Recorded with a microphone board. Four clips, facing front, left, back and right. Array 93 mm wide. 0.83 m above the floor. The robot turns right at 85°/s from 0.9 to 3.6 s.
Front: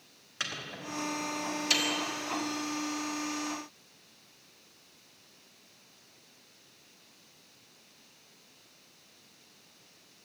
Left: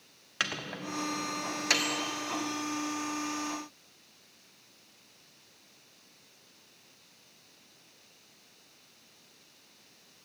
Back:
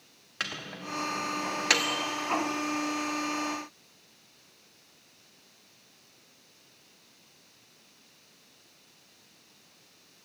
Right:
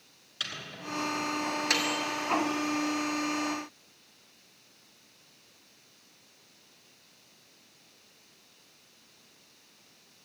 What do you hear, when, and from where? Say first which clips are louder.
0.4 s a microwave: left 5 dB, back 2 dB; 105° left, 1.1 m; by 2.0 s 160° right, 1.1 m